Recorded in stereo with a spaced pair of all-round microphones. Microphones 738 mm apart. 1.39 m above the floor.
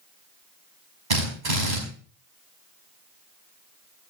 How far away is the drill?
About 5 m.